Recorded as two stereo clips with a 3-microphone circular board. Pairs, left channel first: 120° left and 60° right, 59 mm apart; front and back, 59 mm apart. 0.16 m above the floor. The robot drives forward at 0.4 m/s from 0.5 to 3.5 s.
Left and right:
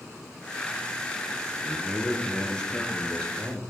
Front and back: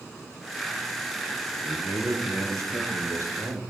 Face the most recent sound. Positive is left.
turn(degrees=-165)